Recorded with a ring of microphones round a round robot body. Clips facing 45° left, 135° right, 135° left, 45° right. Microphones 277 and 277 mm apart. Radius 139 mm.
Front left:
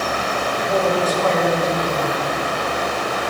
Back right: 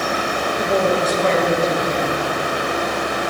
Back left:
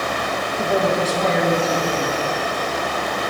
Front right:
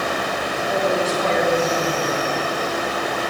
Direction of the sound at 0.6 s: 160° left.